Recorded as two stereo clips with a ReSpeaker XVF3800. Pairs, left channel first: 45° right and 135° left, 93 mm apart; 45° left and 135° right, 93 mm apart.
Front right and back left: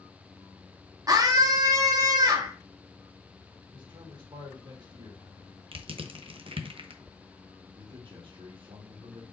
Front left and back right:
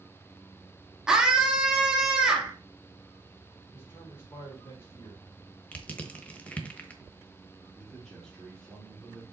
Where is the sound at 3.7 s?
105° left, 3 m.